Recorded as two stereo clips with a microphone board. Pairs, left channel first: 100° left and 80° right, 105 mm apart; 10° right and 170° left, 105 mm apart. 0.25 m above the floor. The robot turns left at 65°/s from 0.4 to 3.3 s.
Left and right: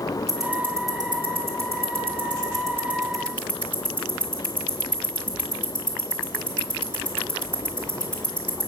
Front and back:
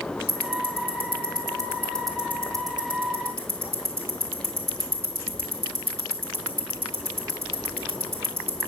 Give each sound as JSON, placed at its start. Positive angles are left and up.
{"t": 0.3, "sound": "ticking", "azimuth_deg": 10, "distance_m": 2.0}